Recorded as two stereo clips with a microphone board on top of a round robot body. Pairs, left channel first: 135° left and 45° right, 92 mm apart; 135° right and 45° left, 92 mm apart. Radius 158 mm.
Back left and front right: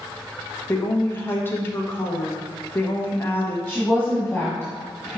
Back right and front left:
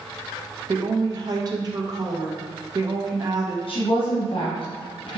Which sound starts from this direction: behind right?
A woman speaking, at 3.7 s.